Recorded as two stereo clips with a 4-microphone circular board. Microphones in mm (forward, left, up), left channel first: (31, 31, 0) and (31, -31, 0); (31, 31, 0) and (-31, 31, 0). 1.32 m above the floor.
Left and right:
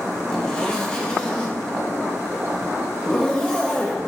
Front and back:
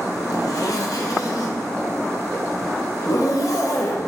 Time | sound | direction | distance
0.3 | a zipper | 15° left | 0.7 m